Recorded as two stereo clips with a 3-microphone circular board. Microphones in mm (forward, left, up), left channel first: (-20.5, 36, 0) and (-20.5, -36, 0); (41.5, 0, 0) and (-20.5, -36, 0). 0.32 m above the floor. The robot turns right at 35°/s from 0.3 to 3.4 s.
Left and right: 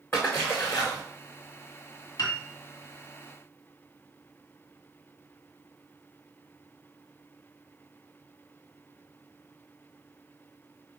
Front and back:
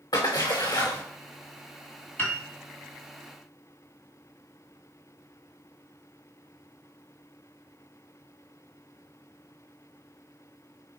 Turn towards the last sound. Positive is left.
turn(degrees=140)